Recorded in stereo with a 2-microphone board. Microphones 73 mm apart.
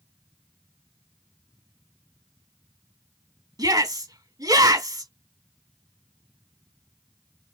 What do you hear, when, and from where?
3.6 s a shout: 60° right (ahead or behind), 3 m